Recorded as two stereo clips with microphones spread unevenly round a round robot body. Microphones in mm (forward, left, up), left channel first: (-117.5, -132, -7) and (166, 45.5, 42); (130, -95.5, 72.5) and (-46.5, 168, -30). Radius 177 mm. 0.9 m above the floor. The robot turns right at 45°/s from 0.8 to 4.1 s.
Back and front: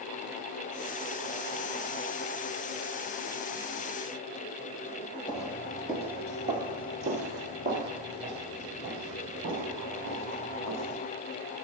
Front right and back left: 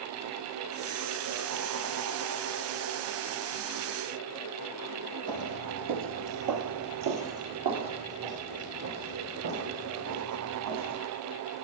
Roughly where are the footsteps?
Behind left.